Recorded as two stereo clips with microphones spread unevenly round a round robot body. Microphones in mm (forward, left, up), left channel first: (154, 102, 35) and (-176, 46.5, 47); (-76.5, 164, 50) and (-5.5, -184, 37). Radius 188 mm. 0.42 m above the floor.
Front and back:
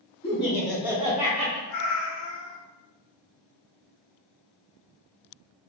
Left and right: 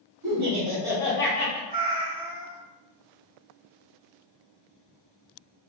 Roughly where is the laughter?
Ahead right.